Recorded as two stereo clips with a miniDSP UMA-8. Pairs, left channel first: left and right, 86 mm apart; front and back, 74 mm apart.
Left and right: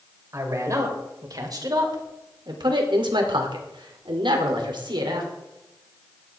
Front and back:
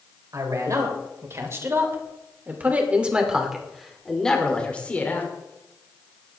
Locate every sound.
0.3 s a man speaking: 140° right, 4 m; by 5.3 s 65° right, 3 m